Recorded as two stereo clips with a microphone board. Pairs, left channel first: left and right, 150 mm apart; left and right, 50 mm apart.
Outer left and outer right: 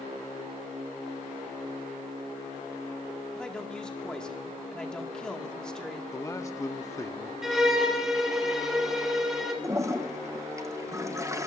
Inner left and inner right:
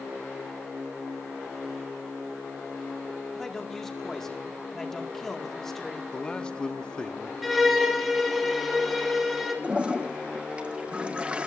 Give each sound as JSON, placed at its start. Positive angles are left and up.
{"t": 3.4, "sound": "a man speaking", "side_deg": 5, "distance_m": 2.0}
{"t": 6.1, "sound": "a man speaking", "side_deg": 20, "distance_m": 1.0}
{"t": 7.4, "sound": "a violin", "side_deg": -5, "distance_m": 3.0}
{"t": 9.6, "sound": "a toilet flushing", "side_deg": -20, "distance_m": 0.9}